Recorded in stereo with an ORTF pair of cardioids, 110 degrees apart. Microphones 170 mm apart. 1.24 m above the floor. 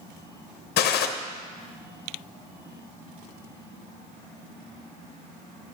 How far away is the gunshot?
About 0.8 m.